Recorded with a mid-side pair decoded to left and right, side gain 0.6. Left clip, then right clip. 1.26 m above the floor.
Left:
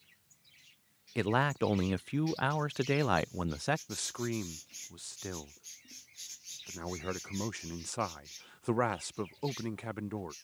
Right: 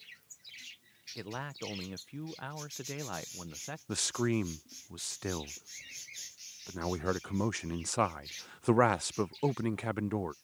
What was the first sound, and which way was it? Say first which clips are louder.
A man speaking: left 12 dB; 55° left.